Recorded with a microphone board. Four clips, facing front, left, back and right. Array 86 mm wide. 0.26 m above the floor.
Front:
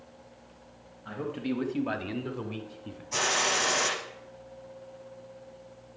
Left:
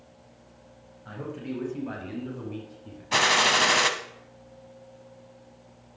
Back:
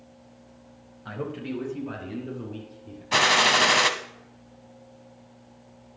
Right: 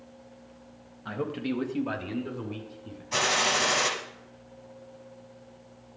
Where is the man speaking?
125° right, 1.3 m; by 3.0 s straight ahead, 2.5 m.